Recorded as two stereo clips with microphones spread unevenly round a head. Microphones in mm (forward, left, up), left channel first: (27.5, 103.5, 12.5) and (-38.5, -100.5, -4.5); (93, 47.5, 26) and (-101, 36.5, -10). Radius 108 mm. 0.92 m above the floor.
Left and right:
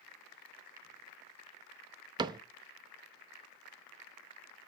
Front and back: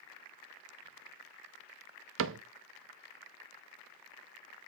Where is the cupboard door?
Straight behind, 0.6 m.